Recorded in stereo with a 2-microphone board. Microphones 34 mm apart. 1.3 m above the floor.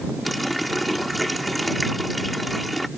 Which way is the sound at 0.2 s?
Centre (ahead or behind).